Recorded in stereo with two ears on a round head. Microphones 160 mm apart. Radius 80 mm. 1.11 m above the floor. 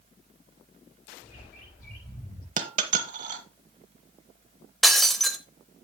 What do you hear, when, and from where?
1.2 s a bird: 55° left (ahead or behind), 7 m
2.6 s a dropped coin: 45° right (ahead or behind), 1.2 m
4.8 s breaking glass: centre (ahead or behind), 0.9 m